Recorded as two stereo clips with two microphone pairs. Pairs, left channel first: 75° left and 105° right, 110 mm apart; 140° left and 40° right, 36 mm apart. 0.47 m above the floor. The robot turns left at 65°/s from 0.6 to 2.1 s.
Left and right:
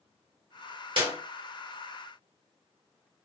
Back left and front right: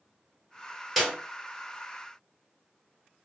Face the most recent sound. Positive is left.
turn(degrees=160)